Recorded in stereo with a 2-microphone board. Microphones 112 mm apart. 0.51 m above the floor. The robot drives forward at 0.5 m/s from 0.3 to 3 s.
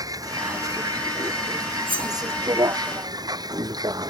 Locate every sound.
0.0 s a vehicle: 35° right (ahead or behind); by 4.1 s 40° right (ahead or behind)
1.9 s cutlery clinking: 60° right (ahead or behind); by 2.1 s 55° right (ahead or behind)